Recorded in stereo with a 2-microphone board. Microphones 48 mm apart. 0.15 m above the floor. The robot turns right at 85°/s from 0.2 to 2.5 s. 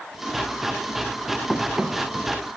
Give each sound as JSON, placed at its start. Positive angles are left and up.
{"t": 1.5, "sound": "running footsteps", "side_deg": 5, "distance_m": 2.5}